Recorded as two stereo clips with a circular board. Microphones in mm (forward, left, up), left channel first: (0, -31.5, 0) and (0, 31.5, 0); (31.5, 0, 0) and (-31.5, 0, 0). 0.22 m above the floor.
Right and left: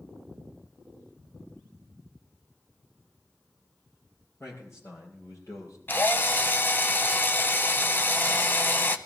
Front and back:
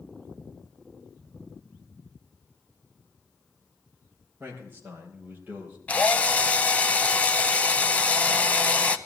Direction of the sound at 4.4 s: 125° right.